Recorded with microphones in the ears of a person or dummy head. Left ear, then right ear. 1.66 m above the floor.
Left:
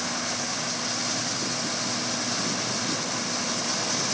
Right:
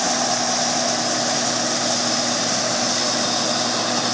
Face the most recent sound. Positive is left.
No sound to turn to.